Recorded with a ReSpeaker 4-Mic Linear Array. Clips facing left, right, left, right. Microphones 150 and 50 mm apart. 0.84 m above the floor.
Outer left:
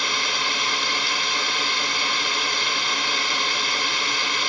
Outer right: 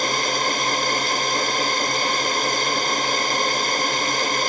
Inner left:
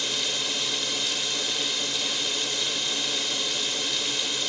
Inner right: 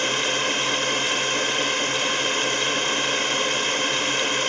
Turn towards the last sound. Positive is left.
turn(degrees=-45)  # may be behind; listen again after turning